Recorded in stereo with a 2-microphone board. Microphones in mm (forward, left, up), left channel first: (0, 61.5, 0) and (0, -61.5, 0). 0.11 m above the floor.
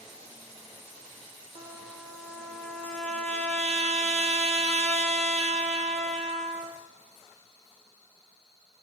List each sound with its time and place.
1.6 s a trumpet: 60° right (ahead or behind), 2.5 m